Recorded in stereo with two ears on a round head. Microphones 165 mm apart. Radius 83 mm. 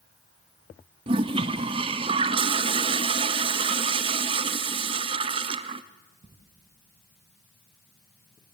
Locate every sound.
1.1 s a toilet flushing: 30° right (ahead or behind), 0.8 m